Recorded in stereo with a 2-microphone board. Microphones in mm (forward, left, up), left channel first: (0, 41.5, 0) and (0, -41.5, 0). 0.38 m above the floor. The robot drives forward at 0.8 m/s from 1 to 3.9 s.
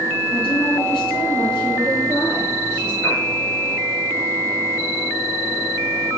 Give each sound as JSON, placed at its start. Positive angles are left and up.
{"t": 0.3, "sound": "a woman speaking", "side_deg": 75, "distance_m": 5.0}
{"t": 3.0, "sound": "a piano", "side_deg": 45, "distance_m": 6.5}